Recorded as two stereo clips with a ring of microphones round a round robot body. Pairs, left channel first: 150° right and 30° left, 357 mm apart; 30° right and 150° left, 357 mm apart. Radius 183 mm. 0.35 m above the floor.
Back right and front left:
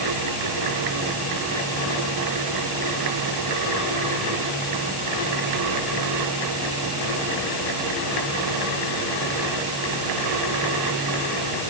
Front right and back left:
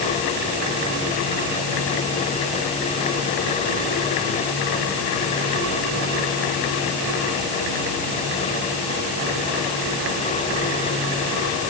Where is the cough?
I don't hear a cough.